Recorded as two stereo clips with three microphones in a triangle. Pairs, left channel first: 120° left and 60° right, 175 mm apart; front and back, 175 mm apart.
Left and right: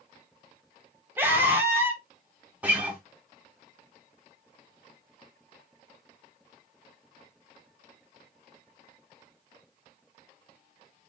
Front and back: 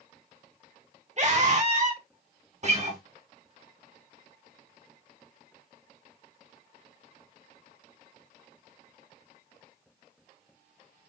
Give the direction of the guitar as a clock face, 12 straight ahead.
5 o'clock.